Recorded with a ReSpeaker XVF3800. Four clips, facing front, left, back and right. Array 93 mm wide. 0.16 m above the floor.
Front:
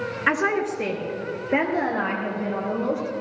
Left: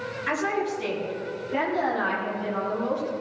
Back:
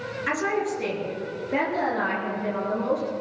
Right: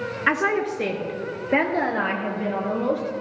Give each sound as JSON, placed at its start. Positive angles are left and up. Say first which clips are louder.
{"t": 0.3, "sound": "a woman speaking", "louder": "right 5 dB, front 3 dB", "azimuth_deg": -50, "distance_m": 2.5}